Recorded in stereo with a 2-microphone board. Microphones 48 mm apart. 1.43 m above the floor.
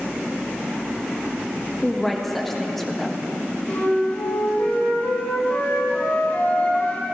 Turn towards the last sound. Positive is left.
turn(degrees=35)  # may be behind; listen again after turning